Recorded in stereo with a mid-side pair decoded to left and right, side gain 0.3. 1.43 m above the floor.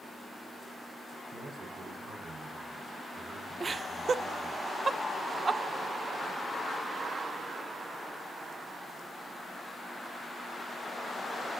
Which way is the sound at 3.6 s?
55° right.